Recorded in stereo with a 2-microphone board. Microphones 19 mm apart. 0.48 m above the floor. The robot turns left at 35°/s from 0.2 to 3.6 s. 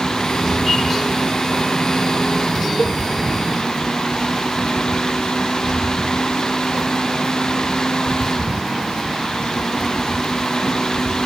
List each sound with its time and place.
2.8 s a cowbell: 60° left (ahead or behind); by 3.0 s 55° left (ahead or behind)